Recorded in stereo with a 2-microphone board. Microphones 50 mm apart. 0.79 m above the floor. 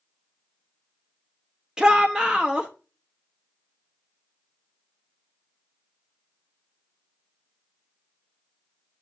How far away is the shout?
About 0.6 m.